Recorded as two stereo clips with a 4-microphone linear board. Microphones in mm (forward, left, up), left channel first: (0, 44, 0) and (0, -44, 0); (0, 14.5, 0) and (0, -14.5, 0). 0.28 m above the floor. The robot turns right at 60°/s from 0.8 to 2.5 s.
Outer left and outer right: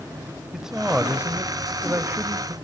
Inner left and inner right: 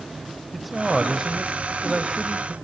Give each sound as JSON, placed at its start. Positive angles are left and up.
{"t": 0.5, "sound": "a man speaking", "side_deg": -5, "distance_m": 1.6}